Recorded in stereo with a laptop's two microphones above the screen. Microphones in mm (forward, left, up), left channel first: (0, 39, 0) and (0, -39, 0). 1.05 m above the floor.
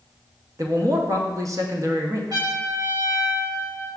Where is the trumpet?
60° right (ahead or behind), 2.0 m.